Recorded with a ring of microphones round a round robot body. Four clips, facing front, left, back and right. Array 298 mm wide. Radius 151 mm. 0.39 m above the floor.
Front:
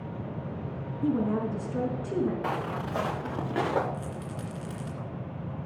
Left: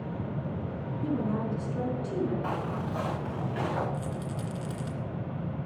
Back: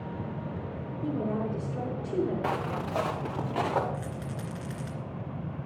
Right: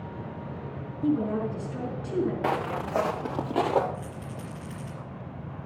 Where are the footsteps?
90° right, 2.5 m; by 3.8 s 60° right, 3 m.